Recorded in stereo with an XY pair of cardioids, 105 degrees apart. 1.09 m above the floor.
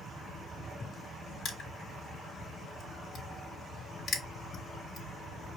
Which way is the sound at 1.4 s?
60° left.